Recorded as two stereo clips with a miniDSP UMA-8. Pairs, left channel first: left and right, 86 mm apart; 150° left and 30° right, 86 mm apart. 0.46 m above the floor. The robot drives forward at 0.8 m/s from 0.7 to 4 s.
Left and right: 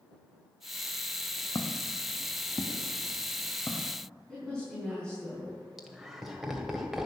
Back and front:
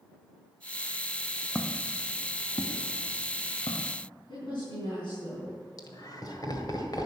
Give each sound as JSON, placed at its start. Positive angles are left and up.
{"t": 1.6, "sound": "footsteps", "azimuth_deg": 65, "distance_m": 1.5}
{"t": 4.3, "sound": "a woman speaking", "azimuth_deg": 170, "distance_m": 4.5}
{"t": 5.8, "sound": "laughter", "azimuth_deg": -175, "distance_m": 1.9}